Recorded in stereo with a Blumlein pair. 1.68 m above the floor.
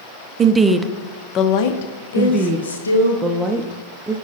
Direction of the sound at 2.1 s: 5° right.